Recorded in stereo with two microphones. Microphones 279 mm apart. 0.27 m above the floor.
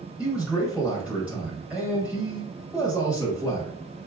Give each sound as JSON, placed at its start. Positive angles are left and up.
{"t": 0.2, "sound": "a man speaking", "side_deg": -5, "distance_m": 1.1}